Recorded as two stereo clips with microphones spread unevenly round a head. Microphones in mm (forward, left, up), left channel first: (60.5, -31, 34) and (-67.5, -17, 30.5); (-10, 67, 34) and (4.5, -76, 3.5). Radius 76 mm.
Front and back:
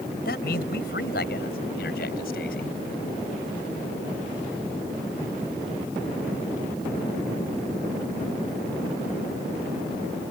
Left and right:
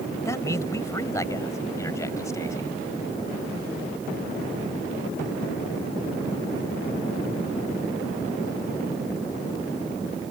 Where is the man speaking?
25° left.